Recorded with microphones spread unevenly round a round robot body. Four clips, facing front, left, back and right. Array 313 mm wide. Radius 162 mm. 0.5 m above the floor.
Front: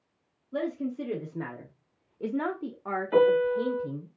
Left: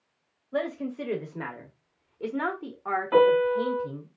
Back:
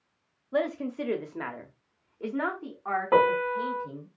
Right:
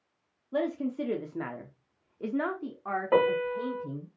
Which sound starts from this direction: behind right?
A man speaking, at 0.5 s.